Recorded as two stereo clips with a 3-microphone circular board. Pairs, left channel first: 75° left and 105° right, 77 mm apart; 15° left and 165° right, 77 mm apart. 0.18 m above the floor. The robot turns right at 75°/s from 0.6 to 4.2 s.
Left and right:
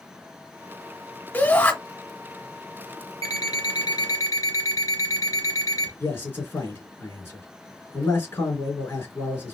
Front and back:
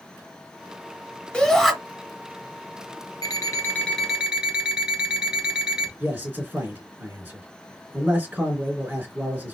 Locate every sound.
1.3 s a shout: 75° left, 1.2 m; by 1.7 s 105° left, 1.2 m
3.2 s an alarm clock: 45° left, 1.6 m; by 5.9 s 115° left, 1.6 m
6.0 s a man speaking: 130° left, 3 m